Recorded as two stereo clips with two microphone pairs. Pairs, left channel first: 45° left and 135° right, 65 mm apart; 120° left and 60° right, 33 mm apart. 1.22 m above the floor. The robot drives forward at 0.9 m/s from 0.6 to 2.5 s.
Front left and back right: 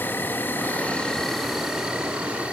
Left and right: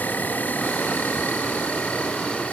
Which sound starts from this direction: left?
An insect, at 0.0 s.